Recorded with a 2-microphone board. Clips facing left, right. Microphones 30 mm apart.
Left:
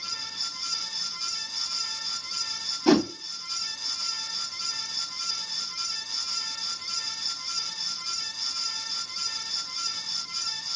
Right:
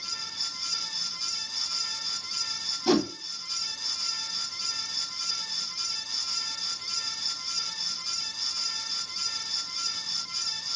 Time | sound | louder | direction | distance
2.9 | a whoosh | left 3 dB | 40° left (ahead or behind) | 0.7 m